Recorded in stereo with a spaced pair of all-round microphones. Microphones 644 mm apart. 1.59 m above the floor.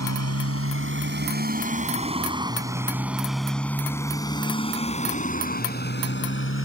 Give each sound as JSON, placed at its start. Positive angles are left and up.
{"t": 0.0, "sound": "a motorcycle", "side_deg": -25}